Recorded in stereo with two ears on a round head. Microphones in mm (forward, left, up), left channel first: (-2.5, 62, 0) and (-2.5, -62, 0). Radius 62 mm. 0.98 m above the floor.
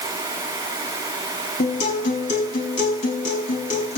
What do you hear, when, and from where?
1.6 s a guitar: 60° left (ahead or behind), 4.5 m